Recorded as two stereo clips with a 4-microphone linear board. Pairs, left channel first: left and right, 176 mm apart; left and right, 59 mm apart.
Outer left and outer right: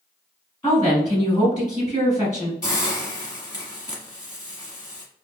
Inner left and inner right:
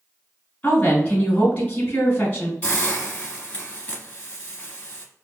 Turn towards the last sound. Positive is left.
turn(degrees=20)  # may be behind; listen again after turning